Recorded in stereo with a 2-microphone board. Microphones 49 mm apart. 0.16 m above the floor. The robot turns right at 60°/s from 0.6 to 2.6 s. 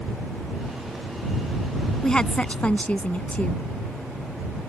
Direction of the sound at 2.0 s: 25° left.